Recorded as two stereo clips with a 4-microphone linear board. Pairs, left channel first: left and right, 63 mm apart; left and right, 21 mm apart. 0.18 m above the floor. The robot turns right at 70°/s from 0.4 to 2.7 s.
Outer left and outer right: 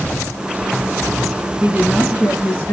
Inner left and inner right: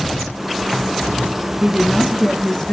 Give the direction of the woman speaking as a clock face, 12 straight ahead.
1 o'clock.